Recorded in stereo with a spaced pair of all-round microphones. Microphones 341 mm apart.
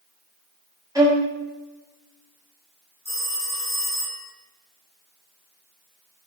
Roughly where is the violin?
Centre.